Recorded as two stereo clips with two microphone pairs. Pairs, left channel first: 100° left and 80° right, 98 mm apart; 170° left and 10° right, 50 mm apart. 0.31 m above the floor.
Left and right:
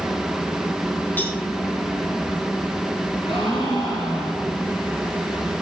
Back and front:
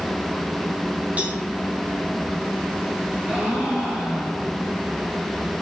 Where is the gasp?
65° left, 4 m.